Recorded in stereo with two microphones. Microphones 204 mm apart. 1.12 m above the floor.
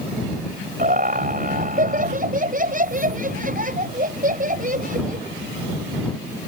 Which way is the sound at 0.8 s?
45° right (ahead or behind).